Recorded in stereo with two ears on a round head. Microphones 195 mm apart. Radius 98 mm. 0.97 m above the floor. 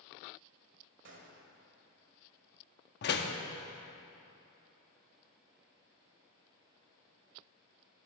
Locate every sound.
1.1 s a gunshot: 55° right (ahead or behind), 1.6 m
3.0 s a door slam: 50° left (ahead or behind), 0.8 m